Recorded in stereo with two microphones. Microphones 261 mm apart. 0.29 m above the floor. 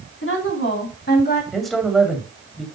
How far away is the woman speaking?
About 3 m.